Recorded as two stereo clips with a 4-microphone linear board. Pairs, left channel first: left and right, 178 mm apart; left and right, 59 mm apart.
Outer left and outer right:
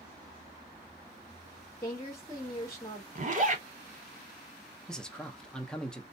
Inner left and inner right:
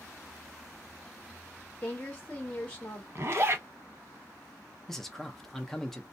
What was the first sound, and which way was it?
A woman speaking, 15° left (ahead or behind).